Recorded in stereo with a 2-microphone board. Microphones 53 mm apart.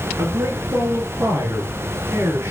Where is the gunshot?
No gunshot in this recording.